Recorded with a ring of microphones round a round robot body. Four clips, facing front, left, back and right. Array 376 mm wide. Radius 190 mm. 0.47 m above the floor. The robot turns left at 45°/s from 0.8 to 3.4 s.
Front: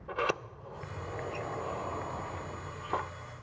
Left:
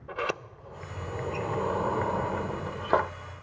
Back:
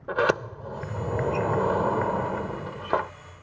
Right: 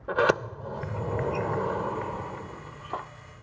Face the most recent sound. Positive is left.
turn(degrees=110)